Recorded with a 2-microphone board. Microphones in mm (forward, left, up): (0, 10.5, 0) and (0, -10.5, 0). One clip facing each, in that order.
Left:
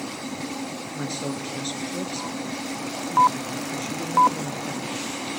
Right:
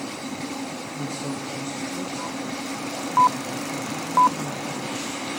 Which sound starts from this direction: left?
A woman speaking, at 0.9 s.